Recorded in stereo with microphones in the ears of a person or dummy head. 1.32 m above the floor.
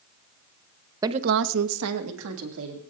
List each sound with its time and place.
1.0 s a woman speaking: 15° right (ahead or behind), 0.6 m; by 2.8 s 75° right (ahead or behind), 2.5 m